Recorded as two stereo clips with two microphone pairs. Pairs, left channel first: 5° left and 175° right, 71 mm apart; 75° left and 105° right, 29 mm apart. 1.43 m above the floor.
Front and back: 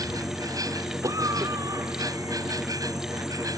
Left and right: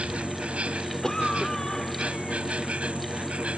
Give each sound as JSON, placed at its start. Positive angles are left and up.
{"t": 0.0, "sound": "an insect", "azimuth_deg": -145}
{"t": 1.0, "sound": "a cough", "azimuth_deg": 150}